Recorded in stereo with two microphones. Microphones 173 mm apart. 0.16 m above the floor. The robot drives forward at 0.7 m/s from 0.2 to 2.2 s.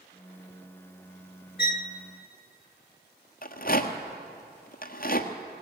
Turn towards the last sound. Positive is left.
turn(degrees=60)  # may be behind; listen again after turning